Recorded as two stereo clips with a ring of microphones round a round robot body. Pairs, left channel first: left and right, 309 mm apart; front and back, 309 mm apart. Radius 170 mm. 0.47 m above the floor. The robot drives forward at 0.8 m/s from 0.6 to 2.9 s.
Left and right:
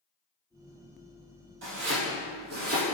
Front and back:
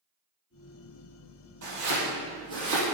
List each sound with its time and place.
1.6 s chopping: 140° right, 3 m; by 2.8 s 150° right, 4 m